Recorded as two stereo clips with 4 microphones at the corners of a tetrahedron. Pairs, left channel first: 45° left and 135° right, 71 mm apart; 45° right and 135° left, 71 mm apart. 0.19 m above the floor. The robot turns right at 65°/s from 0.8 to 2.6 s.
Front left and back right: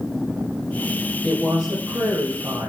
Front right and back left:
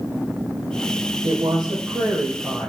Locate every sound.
1.2 s a woman speaking: 120° left, 4 m; by 2.7 s 155° right, 4 m